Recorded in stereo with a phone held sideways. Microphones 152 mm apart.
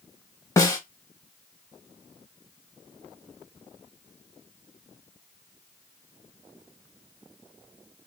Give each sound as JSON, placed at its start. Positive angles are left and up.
{"t": 0.6, "sound": "a snare drum", "side_deg": 20, "distance_m": 0.7}